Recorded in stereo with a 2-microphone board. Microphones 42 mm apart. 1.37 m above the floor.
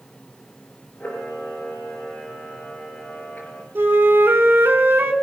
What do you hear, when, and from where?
1.0 s a camera shutter: 40° left (ahead or behind), 5 m
3.8 s a flute: 70° right (ahead or behind), 2.0 m